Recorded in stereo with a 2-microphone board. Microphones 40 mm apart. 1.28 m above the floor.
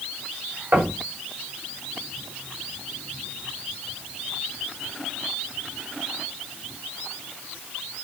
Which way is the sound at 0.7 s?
60° right (ahead or behind).